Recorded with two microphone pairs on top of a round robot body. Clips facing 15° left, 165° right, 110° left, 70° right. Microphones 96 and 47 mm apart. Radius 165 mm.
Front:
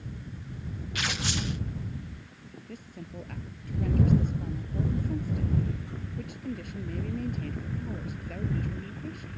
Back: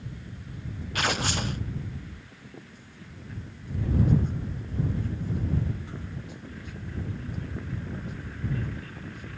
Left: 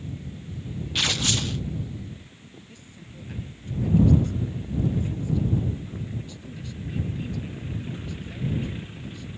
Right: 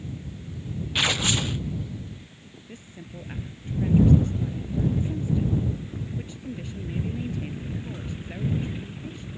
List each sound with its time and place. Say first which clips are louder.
0.9 s tearing paper: back 5 dB, right 2 dB; 140° right
2.7 s a woman speaking: front 6 dB, right 4 dB; 10° right